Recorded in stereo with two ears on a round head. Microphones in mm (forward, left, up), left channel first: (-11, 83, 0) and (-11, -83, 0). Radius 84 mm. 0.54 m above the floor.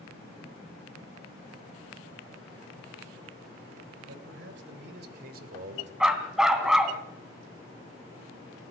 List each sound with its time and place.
4.1 s a man speaking: 70° right (ahead or behind), 3 m; by 5.9 s 35° right (ahead or behind), 2.5 m
6.0 s a dog barking: 5° right (ahead or behind), 2 m